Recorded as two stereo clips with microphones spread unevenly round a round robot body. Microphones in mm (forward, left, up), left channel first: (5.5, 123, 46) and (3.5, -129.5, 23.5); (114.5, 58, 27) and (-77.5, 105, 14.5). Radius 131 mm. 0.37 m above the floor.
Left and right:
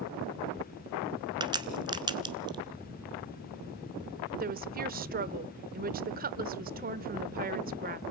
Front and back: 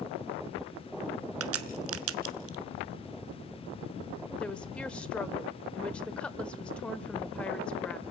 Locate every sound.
1.4 s a crack: 165° right, 1.1 m
4.4 s a woman speaking: 100° right, 0.9 m